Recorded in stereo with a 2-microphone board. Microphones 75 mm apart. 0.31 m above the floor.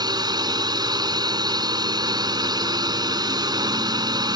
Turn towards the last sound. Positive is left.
turn(degrees=-65)  # may be behind; listen again after turning